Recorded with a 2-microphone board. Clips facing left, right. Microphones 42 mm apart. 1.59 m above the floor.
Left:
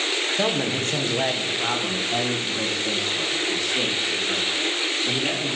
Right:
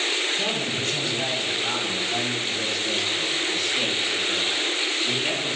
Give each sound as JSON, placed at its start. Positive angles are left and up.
{"t": 0.4, "sound": "a man speaking", "side_deg": 55, "distance_m": 1.3}